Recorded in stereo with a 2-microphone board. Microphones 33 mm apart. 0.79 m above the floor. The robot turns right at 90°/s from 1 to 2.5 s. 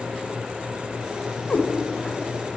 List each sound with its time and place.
1.5 s a cat meowing: 50° left (ahead or behind), 1.3 m; by 1.7 s 35° left (ahead or behind), 1.3 m